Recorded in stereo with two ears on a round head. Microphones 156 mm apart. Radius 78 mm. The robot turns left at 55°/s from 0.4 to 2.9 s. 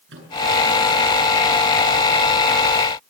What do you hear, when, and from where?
0.1 s a microwave: 75° right (ahead or behind), 8.5 m